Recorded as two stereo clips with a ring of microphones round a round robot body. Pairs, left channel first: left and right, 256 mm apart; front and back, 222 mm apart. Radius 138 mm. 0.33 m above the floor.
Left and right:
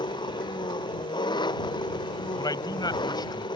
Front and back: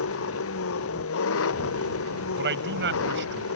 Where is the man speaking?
160° left.